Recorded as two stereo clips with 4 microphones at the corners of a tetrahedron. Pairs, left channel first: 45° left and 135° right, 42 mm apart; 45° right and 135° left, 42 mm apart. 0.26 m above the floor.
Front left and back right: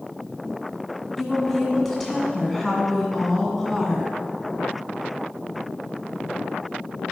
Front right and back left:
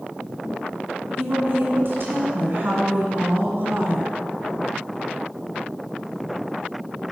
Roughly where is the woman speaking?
Behind left.